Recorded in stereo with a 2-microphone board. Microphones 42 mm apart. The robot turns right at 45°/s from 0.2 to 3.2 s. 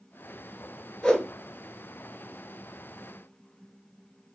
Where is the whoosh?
10° left (ahead or behind), 1.3 m; by 1.3 s 25° left (ahead or behind), 1.3 m.